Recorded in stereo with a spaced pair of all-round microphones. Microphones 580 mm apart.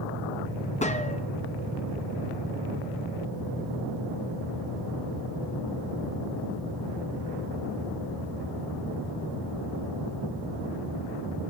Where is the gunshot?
10° left (ahead or behind), 0.8 m.